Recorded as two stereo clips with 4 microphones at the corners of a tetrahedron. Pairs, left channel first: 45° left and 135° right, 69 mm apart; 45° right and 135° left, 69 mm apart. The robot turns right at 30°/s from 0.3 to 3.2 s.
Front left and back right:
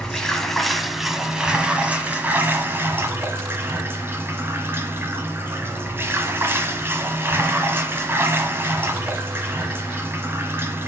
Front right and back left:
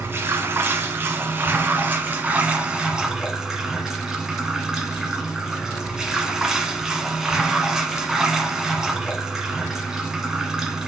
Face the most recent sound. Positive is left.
turn(degrees=-150)